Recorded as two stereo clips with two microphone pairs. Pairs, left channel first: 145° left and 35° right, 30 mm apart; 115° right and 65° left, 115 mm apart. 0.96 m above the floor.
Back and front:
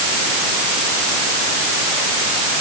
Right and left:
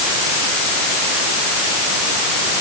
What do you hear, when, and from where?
Only background noise.